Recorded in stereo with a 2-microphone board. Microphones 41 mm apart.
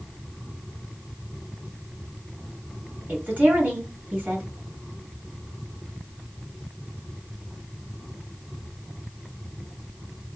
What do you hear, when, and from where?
3.1 s a woman speaking: 40° right (ahead or behind), 2.5 m